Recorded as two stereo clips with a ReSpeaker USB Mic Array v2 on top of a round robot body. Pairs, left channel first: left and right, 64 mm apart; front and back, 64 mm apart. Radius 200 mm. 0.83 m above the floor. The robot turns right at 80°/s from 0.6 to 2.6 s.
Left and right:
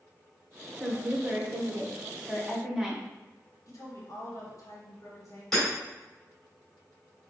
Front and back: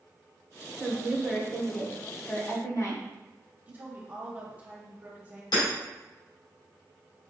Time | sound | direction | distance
0.8 | a woman speaking | 155° right | 1.2 m
3.7 | a woman speaking | 115° left | 1.3 m
5.5 | hammering | 5° left | 1.7 m